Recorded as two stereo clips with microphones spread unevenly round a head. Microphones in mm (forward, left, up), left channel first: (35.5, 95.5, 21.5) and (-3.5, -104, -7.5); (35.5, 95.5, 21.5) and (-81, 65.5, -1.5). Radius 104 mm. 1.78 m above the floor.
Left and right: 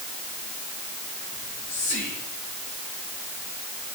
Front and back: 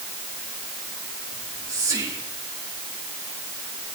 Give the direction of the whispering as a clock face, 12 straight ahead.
8 o'clock.